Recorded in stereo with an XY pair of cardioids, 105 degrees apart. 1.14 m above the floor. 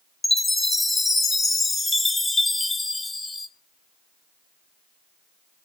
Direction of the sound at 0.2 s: 30° left.